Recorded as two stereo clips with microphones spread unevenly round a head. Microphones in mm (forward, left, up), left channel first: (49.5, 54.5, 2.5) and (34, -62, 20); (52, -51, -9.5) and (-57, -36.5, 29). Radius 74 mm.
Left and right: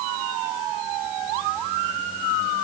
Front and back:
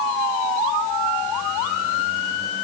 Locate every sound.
Only background noise.